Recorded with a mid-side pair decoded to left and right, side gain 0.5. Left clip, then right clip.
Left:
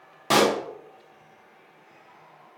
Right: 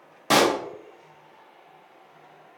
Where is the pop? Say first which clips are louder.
Right 1 dB; 10° right, 0.6 m.